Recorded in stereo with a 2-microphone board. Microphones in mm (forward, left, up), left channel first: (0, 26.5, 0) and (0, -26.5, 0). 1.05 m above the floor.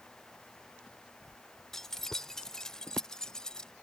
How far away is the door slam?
I don't hear a door slam.